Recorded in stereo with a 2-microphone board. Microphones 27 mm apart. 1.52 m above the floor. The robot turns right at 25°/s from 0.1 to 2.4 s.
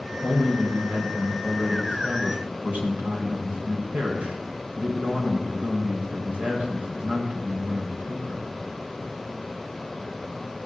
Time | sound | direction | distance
0.2 | a man speaking | 140° right | 4.5 m